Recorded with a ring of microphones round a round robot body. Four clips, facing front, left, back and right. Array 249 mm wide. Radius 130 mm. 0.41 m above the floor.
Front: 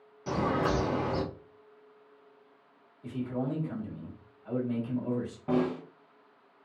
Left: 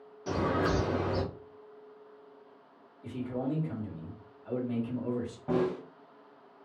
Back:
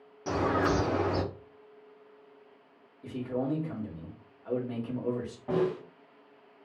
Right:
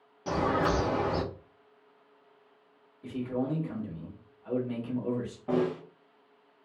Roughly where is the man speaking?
Behind right.